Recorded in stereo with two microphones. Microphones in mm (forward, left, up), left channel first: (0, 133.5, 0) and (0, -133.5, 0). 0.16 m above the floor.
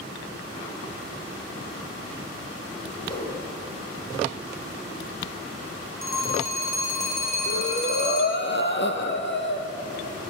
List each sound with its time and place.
3.0 s a whoosh: 20° left (ahead or behind), 8 m
6.0 s a phone ringing: 85° left, 6.5 m
7.5 s breathing: 45° left (ahead or behind), 2.5 m